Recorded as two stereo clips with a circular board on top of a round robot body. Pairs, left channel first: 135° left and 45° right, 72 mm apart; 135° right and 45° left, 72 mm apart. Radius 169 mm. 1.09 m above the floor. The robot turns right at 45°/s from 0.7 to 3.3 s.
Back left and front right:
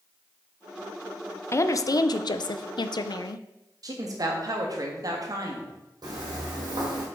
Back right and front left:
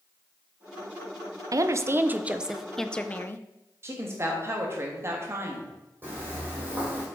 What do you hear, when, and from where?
1.5 s a woman speaking: 85° left, 0.6 m; by 3.5 s 165° left, 0.6 m
3.8 s a woman speaking: 10° right, 1.7 m
6.0 s footsteps: 20° right, 3.5 m